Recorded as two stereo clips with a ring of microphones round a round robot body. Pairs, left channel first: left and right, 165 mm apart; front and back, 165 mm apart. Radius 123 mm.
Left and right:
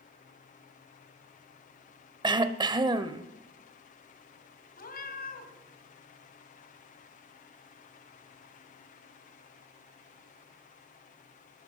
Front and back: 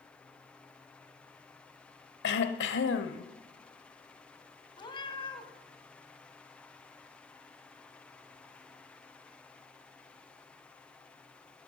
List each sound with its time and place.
2.2 s throat clearing: 25° right, 0.7 m
4.8 s a cat meowing: 60° left, 1.9 m